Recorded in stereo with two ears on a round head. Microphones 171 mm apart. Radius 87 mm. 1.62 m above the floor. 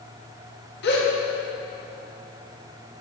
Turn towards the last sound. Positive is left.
turn(degrees=55)  # may be behind; listen again after turning